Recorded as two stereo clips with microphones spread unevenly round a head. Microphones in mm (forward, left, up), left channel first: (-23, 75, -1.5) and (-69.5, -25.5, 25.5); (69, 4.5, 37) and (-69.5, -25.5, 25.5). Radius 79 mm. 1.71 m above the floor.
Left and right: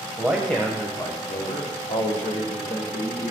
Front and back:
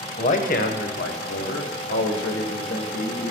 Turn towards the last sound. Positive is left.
turn(degrees=30)